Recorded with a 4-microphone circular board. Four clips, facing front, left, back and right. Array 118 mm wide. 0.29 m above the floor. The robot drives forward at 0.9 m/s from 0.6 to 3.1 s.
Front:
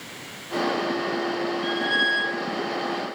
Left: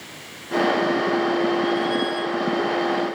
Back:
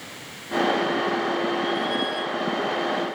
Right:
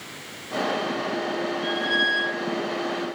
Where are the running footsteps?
I don't hear running footsteps.